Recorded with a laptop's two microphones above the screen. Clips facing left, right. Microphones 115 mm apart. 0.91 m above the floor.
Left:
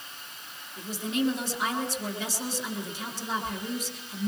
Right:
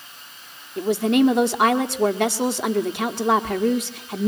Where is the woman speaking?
70° right (ahead or behind), 1.6 m.